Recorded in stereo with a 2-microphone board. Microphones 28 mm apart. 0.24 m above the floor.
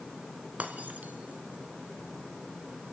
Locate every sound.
0.6 s breaking glass: 65° right (ahead or behind), 2 m